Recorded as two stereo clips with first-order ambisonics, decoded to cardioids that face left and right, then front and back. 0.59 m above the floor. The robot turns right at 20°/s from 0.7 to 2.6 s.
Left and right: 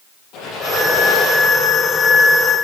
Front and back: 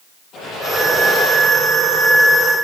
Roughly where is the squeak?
Ahead left.